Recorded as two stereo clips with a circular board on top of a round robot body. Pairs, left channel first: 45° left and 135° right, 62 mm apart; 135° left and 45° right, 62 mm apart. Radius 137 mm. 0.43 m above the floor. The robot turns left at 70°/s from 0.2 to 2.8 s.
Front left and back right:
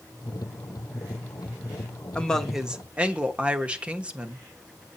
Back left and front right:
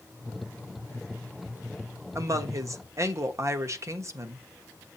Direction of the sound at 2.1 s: 20° right.